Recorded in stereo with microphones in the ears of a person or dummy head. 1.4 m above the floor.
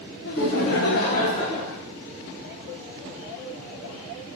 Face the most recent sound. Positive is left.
turn(degrees=15)  # may be behind; listen again after turning